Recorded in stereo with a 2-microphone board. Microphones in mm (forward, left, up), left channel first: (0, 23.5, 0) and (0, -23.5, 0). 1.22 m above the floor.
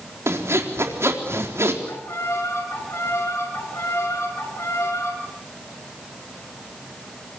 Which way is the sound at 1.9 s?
75° left (ahead or behind).